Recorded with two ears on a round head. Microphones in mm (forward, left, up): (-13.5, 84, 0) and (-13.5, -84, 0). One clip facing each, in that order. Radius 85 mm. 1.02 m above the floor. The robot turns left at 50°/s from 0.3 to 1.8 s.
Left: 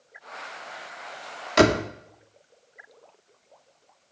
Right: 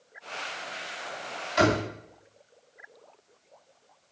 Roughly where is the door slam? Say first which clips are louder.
Left 5 dB; left.